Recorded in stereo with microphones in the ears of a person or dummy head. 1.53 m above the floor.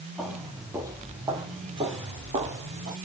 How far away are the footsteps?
About 3.5 m.